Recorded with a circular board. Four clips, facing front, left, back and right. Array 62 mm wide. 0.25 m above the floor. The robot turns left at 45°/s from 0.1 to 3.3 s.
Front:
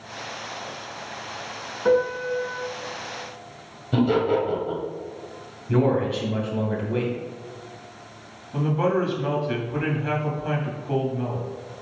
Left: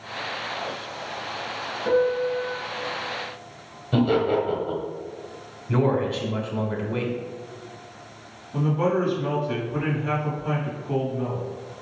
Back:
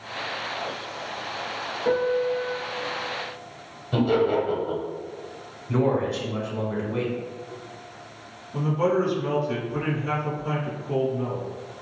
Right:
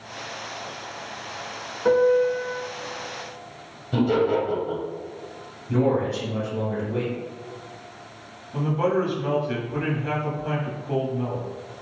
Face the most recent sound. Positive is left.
turn(degrees=-10)